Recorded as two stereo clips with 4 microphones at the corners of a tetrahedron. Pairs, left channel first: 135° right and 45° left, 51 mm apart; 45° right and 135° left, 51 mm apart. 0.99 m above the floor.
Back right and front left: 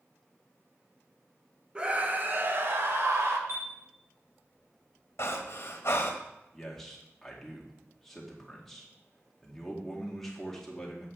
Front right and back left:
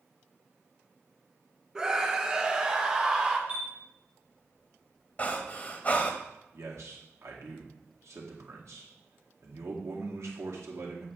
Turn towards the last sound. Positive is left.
turn(degrees=140)